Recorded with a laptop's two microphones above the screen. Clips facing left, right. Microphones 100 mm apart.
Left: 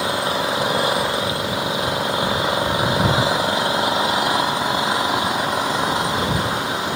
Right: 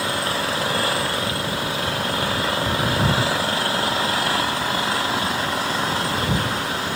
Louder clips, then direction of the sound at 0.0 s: Left 3 dB; 20° left (ahead or behind).